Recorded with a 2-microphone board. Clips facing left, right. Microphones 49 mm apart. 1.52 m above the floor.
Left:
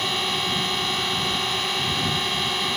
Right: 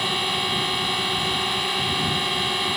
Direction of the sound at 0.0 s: 5° right (ahead or behind).